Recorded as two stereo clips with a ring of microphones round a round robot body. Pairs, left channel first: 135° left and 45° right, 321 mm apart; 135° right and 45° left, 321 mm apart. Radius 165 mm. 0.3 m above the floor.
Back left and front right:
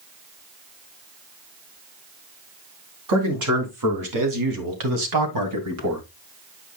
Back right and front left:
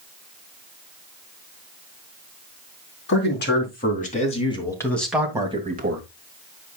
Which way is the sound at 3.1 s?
80° right.